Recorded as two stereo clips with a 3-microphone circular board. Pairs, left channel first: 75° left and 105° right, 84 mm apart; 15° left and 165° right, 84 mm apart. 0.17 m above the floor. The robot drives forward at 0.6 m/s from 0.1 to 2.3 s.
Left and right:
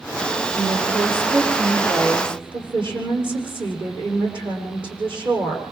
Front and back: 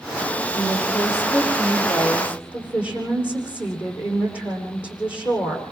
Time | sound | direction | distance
0.6 | a woman speaking | 80° right | 9 m